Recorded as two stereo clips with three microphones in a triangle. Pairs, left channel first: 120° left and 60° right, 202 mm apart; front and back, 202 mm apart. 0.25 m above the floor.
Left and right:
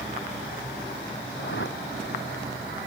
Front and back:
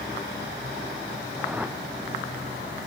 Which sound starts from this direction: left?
A whoosh, at 1.4 s.